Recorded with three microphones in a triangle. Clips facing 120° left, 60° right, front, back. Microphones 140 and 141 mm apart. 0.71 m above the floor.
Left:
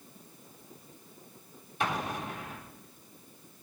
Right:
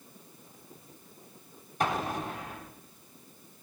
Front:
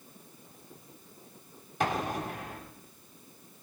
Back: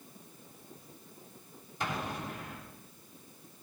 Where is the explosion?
10° right, 3.5 m.